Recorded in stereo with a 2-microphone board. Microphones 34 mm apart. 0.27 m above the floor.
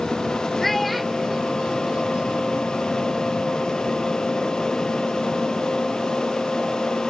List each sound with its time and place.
0.6 s a child speaking: 5° left (ahead or behind); by 2.7 s 45° right (ahead or behind)